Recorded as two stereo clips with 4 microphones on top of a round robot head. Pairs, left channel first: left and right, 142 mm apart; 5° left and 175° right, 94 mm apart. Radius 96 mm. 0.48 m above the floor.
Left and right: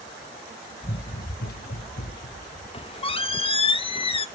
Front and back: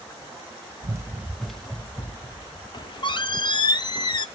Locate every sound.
0.8 s running footsteps: 135° left, 0.7 m; by 2.6 s 65° left, 1.9 m
2.7 s a squeak: 40° left, 1.0 m